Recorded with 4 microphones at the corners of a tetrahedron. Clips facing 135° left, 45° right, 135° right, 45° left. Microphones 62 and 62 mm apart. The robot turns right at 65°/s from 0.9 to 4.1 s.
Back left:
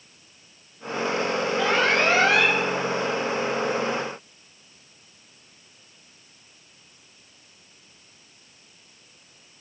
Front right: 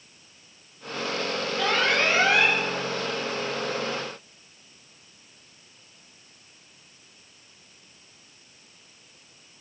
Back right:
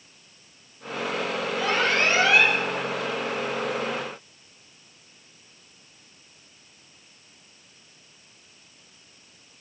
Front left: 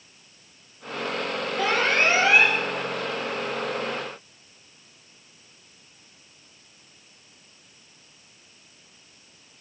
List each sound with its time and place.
1.6 s an alarm: 60° left, 8.5 m; by 2.6 s 125° left, 8.5 m